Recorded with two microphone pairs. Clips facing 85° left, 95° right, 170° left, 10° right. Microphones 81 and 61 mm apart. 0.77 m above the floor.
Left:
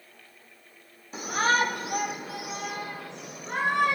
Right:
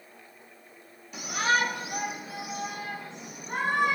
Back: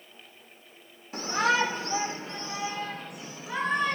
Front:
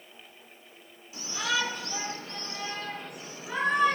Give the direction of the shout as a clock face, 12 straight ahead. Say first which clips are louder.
Left 2 dB, back 6 dB; 7 o'clock.